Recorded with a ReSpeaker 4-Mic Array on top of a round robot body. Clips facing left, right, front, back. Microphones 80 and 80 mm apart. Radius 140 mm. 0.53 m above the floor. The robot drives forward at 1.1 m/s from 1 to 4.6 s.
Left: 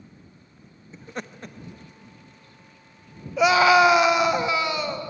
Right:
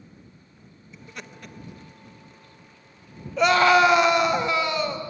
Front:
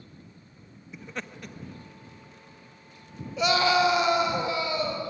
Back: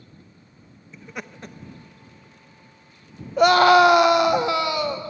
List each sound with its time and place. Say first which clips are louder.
0.9 s laughter: left 6 dB, back 1 dB; 75° left, 0.8 m; by 1.6 s 145° left, 0.9 m
3.4 s a scream: left 1 dB, back 9 dB; 175° left, 1.5 m